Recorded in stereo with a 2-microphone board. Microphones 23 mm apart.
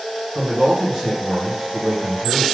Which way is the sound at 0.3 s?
35° right (ahead or behind).